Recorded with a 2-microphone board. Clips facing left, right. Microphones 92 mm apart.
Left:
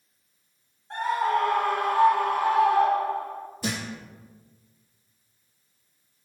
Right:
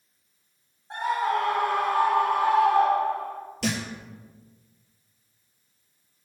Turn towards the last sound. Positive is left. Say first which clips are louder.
# right 3 dB
turn(degrees=-85)